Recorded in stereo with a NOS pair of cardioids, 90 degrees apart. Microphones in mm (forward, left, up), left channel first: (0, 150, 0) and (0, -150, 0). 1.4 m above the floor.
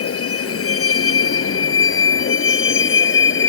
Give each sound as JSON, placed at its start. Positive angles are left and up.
{"t": 0.0, "sound": "a vehicle", "azimuth_deg": 50}